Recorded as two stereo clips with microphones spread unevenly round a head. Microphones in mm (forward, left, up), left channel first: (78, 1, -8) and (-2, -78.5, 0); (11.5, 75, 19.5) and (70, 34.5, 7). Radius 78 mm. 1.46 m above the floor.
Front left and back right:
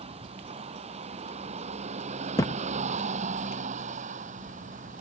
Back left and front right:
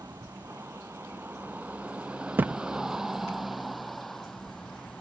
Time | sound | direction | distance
0.0 | a vehicle | 105° right | ?
2.4 | a thud | 25° left | ?